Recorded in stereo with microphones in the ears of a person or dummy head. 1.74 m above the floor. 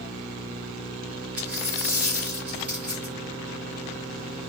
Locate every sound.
1.4 s a dropped coin: 5° right (ahead or behind), 1.2 m